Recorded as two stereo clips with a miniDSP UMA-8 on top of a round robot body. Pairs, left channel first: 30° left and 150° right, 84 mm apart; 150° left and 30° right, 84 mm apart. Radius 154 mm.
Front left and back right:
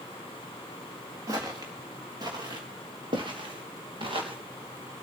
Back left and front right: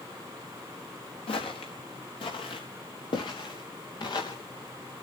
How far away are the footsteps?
About 3.5 m.